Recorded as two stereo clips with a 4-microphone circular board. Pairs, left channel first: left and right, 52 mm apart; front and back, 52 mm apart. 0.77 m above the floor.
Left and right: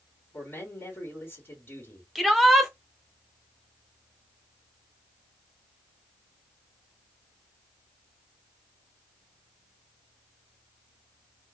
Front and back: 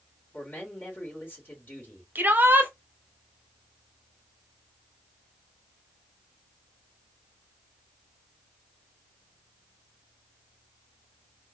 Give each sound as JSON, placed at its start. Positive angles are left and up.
{"t": 0.3, "sound": "a man speaking", "azimuth_deg": 45, "distance_m": 3.0}
{"t": 2.1, "sound": "a shout", "azimuth_deg": 180, "distance_m": 1.1}